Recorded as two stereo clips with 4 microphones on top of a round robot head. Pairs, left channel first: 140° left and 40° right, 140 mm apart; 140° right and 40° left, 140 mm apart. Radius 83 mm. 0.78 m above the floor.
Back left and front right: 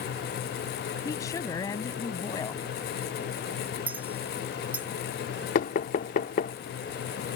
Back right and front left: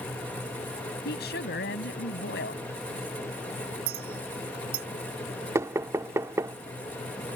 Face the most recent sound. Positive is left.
turn(degrees=110)